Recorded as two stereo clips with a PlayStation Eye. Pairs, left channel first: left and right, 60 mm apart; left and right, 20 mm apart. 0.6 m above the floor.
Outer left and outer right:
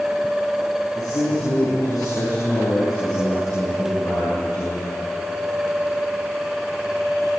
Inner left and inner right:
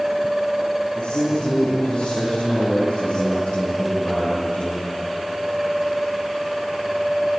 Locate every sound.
0.9 s a man speaking: 80° left, 8 m